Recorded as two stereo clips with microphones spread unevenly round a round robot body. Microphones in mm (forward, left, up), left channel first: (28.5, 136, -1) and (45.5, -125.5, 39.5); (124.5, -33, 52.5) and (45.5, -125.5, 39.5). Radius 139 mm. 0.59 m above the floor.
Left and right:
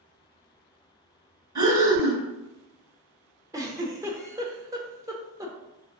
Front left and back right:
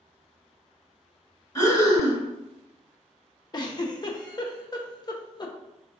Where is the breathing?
10° right, 1.5 m.